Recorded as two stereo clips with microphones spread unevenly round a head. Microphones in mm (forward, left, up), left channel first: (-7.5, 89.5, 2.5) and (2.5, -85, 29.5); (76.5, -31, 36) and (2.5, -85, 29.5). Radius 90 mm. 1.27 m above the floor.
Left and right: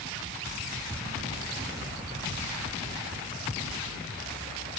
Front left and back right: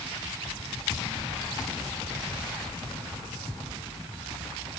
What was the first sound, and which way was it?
Only background noise.